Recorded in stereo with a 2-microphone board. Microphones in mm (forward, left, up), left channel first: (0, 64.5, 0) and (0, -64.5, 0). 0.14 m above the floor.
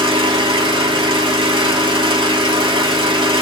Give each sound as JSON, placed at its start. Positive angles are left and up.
{"t": 0.0, "sound": "an engine running", "side_deg": -40, "distance_m": 0.8}